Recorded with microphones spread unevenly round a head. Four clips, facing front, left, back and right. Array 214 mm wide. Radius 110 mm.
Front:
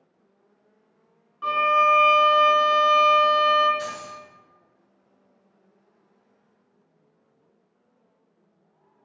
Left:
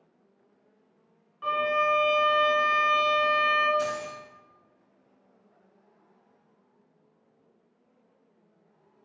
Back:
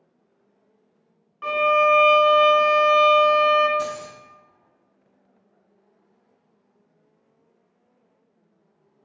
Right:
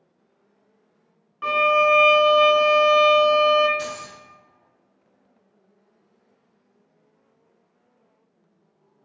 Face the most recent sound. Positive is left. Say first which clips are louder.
# left 2 dB, back 4 dB
turn(degrees=180)